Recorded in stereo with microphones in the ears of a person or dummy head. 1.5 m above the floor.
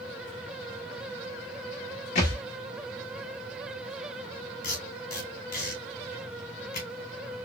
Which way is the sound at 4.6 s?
45° left (ahead or behind).